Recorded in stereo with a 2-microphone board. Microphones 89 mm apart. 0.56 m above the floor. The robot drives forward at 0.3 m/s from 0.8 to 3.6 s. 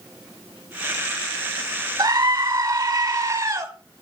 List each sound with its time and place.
2.0 s a scream: 45° right (ahead or behind), 1.6 m; by 3.7 s 40° right (ahead or behind), 1.9 m